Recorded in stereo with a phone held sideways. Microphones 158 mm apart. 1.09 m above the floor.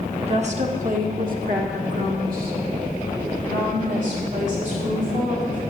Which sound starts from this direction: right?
A woman speaking, at 0.3 s.